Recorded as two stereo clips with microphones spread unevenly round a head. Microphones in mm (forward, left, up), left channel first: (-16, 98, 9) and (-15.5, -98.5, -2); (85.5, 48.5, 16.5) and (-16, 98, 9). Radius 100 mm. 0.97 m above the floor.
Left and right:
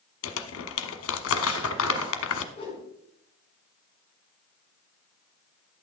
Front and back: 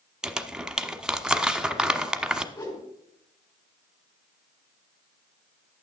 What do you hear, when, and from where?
0.2 s crumpling: 70° left, 1.0 m
2.5 s a whoosh: 25° left, 4.5 m